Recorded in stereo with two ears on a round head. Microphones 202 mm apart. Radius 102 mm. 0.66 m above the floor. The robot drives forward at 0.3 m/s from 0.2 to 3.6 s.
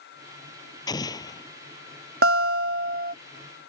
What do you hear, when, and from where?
0.9 s an explosion: 20° left (ahead or behind)
2.2 s a guitar: 45° right (ahead or behind); by 3.1 s 40° right (ahead or behind)